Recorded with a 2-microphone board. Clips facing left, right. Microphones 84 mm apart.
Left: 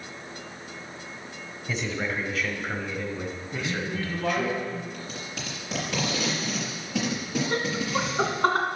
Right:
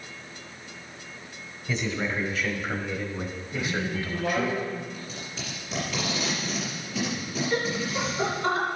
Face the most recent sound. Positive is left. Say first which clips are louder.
# right 1 dB
turn(degrees=55)  # may be behind; listen again after turning